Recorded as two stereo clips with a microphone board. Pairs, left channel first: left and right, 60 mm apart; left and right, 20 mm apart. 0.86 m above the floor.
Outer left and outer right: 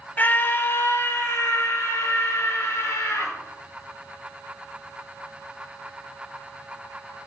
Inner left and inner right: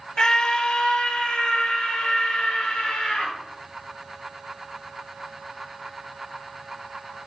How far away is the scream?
About 1.1 m.